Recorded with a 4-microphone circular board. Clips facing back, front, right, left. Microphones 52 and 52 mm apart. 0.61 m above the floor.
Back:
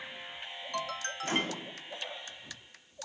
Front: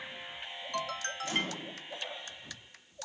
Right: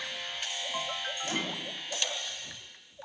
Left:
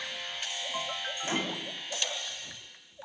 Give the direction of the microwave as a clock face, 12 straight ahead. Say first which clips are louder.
Back 3 dB, left 3 dB; 7 o'clock.